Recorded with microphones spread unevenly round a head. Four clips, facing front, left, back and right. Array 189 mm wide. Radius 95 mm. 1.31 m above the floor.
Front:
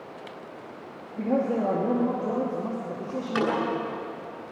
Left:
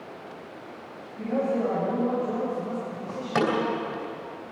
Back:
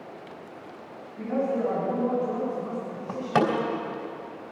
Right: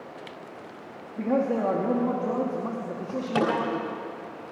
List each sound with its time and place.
1.2 s a man speaking: 45° right, 3 m
3.1 s a door slam: straight behind, 4 m